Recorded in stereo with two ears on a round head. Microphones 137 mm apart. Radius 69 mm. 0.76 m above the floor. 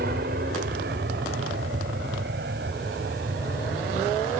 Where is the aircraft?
65° right (ahead or behind); by 4.4 s 70° right (ahead or behind).